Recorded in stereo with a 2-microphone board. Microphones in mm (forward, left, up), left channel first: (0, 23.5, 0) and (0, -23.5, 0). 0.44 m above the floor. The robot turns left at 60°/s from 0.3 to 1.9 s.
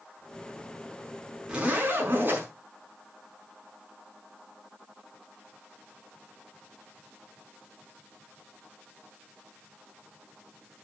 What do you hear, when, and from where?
1.5 s a zipper: 15° right (ahead or behind), 5 m; by 2.5 s 40° right (ahead or behind), 5 m